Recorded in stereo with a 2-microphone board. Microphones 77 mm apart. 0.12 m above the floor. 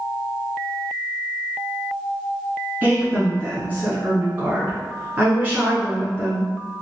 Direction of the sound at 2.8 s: 20° right (ahead or behind).